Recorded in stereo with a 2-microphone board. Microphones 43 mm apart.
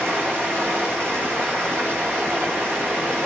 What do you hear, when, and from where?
0.0 s running water: 45° right (ahead or behind), 9.5 m